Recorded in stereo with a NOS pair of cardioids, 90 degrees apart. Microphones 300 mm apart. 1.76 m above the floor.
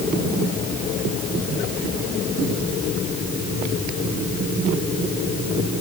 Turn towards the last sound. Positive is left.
No sound to turn to.